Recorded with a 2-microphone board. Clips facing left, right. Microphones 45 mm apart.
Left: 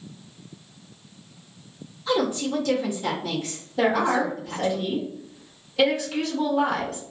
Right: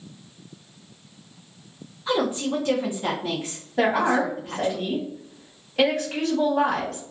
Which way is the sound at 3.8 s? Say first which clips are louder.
Right 1 dB; 60° right (ahead or behind).